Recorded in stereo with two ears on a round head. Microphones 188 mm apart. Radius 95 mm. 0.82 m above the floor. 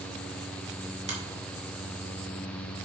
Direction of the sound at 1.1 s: 35° right (ahead or behind).